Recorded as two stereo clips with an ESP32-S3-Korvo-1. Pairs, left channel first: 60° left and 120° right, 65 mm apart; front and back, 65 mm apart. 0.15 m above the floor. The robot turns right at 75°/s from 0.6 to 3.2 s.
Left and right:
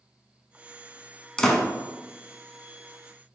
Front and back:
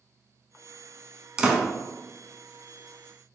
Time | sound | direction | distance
1.4 | a door slam | 120° left | 0.7 m